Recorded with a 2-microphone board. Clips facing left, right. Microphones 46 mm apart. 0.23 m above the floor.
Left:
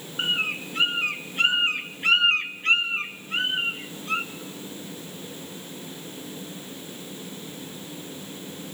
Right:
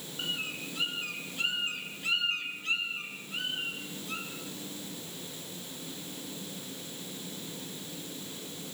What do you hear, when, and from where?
0.2 s a bird: 55° left (ahead or behind), 0.7 m